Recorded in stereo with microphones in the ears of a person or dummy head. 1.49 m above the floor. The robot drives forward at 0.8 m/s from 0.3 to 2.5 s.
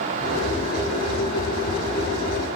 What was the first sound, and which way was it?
Only background noise.